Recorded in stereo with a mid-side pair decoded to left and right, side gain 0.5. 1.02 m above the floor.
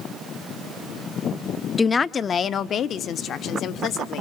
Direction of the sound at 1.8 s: 20° left.